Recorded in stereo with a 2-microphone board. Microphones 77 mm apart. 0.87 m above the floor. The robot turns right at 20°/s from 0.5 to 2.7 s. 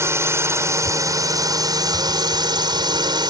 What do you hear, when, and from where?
0.0 s a drone: 140° right; by 3.3 s 95° right